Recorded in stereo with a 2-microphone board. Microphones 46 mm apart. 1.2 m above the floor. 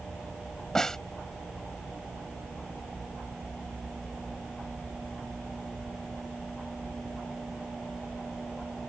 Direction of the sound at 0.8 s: 10° left (ahead or behind).